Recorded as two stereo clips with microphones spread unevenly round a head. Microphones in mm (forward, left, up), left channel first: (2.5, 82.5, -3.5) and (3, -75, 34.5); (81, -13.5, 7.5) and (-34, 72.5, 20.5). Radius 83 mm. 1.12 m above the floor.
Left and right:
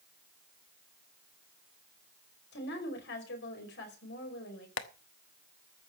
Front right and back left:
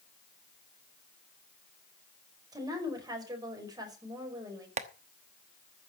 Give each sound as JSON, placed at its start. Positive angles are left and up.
{"t": 2.5, "sound": "a woman speaking", "azimuth_deg": 80, "distance_m": 5.0}
{"t": 4.8, "sound": "tapping", "azimuth_deg": 105, "distance_m": 1.1}